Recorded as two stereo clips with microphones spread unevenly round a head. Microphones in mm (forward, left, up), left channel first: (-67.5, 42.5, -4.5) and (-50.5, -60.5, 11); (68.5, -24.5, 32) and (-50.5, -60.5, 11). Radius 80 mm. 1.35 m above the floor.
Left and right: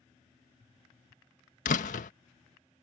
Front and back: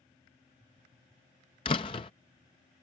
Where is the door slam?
75° left.